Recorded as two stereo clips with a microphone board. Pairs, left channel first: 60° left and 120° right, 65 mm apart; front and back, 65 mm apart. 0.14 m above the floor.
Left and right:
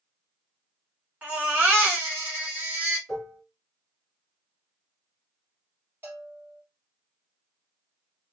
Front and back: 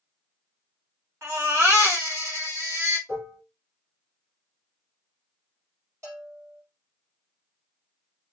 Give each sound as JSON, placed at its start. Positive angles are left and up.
{"t": 1.2, "sound": "a baby crying", "azimuth_deg": -165, "distance_m": 1.3}
{"t": 3.1, "sound": "dishes clattering", "azimuth_deg": 150, "distance_m": 1.7}
{"t": 6.0, "sound": "a bell", "azimuth_deg": -170, "distance_m": 1.5}